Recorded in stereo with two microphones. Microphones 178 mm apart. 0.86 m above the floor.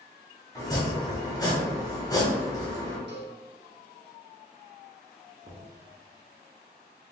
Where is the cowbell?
85° right, 0.9 m.